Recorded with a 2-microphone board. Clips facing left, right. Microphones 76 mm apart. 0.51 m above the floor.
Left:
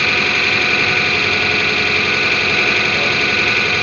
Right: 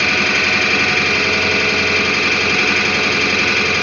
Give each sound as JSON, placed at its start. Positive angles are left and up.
{"t": 0.0, "sound": "an engine running", "side_deg": -10, "distance_m": 1.9}